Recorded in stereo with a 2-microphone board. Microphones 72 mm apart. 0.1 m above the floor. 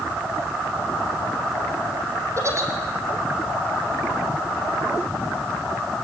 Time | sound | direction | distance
2.4 | a giggle | 40° right (ahead or behind) | 4 m